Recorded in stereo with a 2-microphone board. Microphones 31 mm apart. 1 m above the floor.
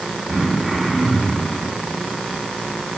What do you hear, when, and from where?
0.3 s throat clearing: 10° left (ahead or behind), 6.5 m